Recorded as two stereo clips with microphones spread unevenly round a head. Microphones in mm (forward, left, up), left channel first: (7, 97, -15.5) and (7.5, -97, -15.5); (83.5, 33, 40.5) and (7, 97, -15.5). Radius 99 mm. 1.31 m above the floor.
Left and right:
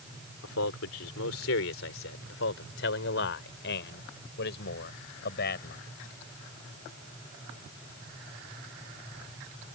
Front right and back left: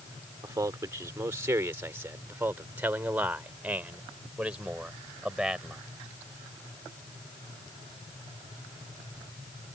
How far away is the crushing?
I don't hear crushing.